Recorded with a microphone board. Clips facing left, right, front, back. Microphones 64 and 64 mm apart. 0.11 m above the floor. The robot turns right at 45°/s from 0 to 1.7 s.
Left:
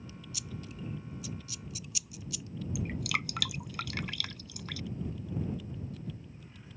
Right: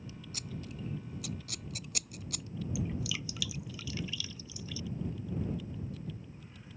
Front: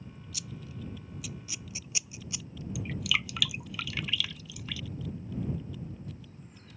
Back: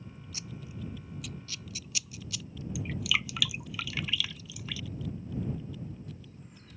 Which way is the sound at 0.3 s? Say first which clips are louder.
Right 1 dB, even; 125° right.